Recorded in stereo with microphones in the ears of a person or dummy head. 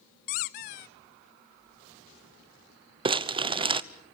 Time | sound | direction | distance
0.3 | a squeak | 40° left (ahead or behind) | 0.7 m
3.0 | crumpling | 25° right (ahead or behind) | 0.9 m